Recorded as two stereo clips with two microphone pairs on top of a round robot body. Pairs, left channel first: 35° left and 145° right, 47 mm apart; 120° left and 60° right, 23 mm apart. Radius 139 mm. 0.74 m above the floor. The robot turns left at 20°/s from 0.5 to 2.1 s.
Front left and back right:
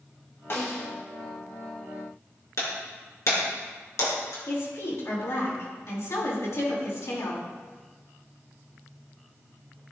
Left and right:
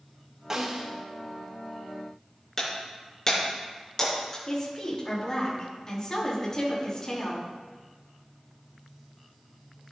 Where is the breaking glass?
50° left, 4.5 m.